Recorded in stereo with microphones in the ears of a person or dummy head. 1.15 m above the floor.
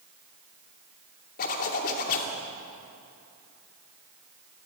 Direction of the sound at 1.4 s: 50° left (ahead or behind).